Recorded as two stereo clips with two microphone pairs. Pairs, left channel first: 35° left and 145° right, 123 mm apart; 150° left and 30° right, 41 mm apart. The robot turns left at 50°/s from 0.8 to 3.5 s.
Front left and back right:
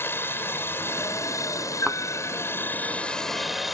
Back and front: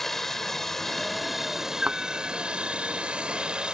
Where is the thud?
60° right; by 2.0 s 70° right.